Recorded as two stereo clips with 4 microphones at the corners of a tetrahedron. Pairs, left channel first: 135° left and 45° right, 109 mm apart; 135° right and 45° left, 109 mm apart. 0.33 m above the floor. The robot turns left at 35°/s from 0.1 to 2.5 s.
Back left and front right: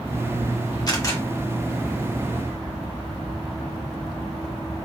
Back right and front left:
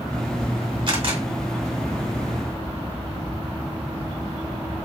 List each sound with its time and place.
0.9 s a camera shutter: 85° left, 2 m; by 1.2 s 75° left, 2 m